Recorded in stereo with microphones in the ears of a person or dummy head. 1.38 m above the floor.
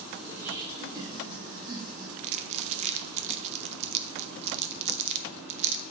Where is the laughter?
5° right (ahead or behind), 0.8 m; by 2.1 s 25° right (ahead or behind), 1.8 m.